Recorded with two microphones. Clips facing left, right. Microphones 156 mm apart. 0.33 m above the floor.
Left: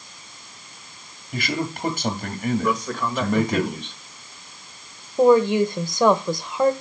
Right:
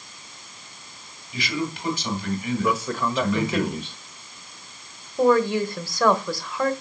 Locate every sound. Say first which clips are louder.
1.3 s a man speaking: left 1 dB; 55° left (ahead or behind), 2.5 m
2.6 s a man speaking: even; 5° right (ahead or behind), 1.3 m
5.2 s a woman speaking: left 4 dB; 20° left (ahead or behind), 1.0 m